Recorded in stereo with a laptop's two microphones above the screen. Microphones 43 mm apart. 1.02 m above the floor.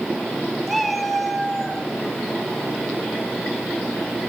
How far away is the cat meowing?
About 1.6 m.